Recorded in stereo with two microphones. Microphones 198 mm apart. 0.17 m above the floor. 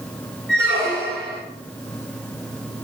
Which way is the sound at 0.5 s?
5° left (ahead or behind).